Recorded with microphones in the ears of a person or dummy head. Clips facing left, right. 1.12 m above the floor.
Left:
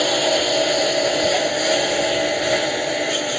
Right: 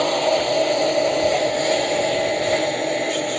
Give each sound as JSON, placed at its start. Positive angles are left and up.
{"t": 0.0, "sound": "a lawn mower", "side_deg": 10}